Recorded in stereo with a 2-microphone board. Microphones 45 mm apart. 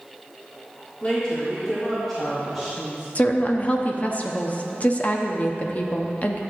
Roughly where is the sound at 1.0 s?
Left.